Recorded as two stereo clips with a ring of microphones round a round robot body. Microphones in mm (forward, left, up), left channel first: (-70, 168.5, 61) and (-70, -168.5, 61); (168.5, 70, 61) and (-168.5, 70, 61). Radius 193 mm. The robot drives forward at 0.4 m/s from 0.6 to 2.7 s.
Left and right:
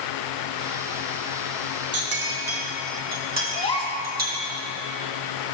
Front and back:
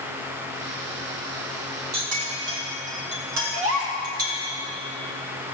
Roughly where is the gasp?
Behind.